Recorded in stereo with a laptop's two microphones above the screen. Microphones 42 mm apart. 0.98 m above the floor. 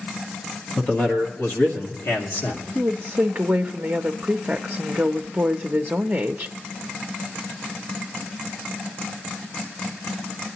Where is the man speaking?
25° left (ahead or behind), 1.3 m; by 2.6 s 70° left (ahead or behind), 2 m.